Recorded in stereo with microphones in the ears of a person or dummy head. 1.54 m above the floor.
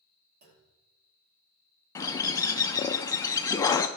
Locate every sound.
0.4 s a clunk: 50° right (ahead or behind), 1.6 m
1.9 s a bird: 15° left (ahead or behind), 0.5 m